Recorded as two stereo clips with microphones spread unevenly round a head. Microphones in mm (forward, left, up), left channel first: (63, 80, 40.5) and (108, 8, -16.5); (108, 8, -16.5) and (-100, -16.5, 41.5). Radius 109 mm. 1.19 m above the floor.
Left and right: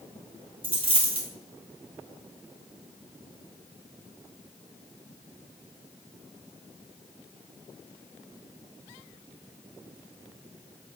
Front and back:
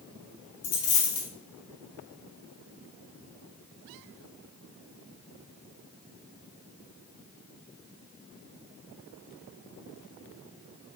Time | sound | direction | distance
0.6 | a dropped coin | 15° right | 1.9 m